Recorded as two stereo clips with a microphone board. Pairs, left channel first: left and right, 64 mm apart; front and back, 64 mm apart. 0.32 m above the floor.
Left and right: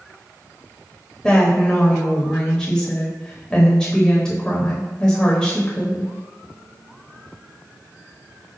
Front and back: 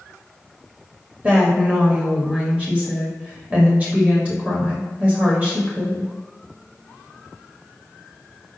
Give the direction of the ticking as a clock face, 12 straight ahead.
No ticking in this recording.